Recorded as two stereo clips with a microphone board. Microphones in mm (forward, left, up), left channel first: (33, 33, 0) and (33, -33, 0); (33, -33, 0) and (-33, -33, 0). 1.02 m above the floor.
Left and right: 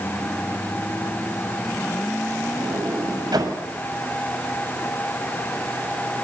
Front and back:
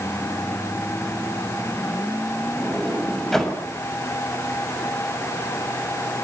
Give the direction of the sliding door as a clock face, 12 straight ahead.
3 o'clock.